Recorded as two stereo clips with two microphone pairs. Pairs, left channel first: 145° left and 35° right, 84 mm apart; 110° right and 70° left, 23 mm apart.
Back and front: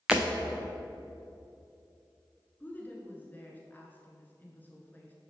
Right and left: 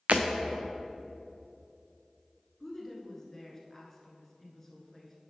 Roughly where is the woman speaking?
Behind.